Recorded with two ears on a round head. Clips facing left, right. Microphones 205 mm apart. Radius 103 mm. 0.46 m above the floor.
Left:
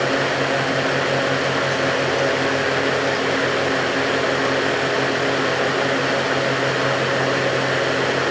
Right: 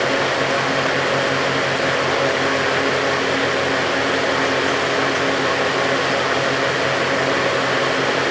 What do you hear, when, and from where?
Only background noise.